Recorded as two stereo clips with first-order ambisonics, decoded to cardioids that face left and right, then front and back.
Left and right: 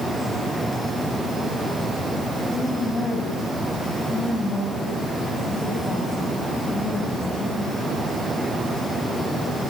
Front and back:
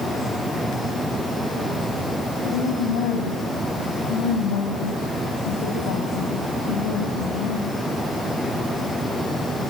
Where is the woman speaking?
10° left, 4 m.